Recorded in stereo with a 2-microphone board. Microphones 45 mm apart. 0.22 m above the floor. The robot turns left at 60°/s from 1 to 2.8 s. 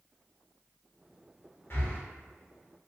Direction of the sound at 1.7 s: 55° left (ahead or behind).